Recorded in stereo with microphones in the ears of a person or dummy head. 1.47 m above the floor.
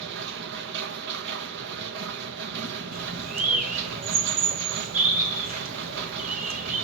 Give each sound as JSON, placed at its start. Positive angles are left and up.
{"t": 0.0, "sound": "a machine running", "side_deg": -60, "distance_m": 1.5}
{"t": 2.9, "sound": "a bird", "side_deg": -40, "distance_m": 1.5}